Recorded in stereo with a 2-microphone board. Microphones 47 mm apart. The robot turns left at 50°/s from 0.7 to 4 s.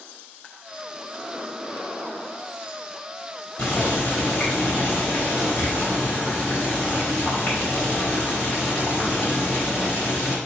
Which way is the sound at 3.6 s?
15° left (ahead or behind).